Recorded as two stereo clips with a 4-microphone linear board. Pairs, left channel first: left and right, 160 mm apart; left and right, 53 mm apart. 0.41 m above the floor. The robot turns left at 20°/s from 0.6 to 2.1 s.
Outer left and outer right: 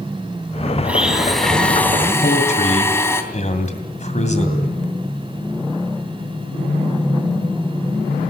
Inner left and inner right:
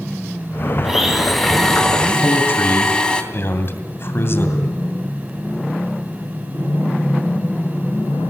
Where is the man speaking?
50° left (ahead or behind), 2.5 m.